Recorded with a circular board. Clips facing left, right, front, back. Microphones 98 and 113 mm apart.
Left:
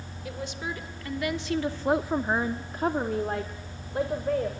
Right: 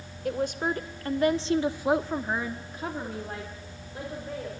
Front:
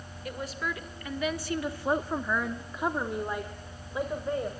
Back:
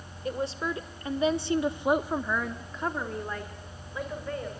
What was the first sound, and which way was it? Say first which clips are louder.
A woman speaking: right 7 dB, back 4 dB; 120° right.